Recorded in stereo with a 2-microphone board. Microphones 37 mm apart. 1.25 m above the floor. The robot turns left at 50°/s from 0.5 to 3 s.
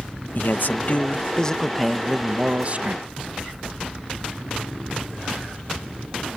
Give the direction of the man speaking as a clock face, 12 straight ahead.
10 o'clock.